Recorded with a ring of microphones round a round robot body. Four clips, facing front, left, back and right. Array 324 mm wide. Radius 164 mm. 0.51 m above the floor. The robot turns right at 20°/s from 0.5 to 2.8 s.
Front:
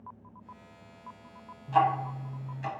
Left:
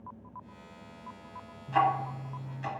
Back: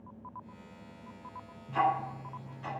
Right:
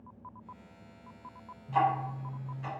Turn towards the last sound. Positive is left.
turn(degrees=45)